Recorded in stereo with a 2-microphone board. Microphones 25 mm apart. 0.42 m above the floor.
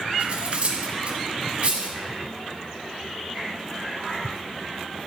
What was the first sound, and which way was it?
Cutlery clinking, 45° right (ahead or behind).